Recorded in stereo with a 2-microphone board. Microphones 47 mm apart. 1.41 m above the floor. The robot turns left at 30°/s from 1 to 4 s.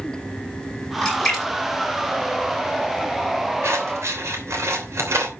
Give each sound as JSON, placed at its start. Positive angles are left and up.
{"t": 1.0, "sound": "a splash", "side_deg": 15, "distance_m": 8.0}
{"t": 3.6, "sound": "scissors", "side_deg": -75, "distance_m": 3.0}